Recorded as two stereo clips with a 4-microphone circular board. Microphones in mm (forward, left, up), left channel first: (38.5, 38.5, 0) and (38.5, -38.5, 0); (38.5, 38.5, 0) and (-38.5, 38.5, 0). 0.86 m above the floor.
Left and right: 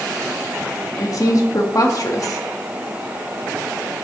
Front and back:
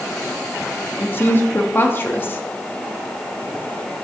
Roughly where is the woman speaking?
Ahead left.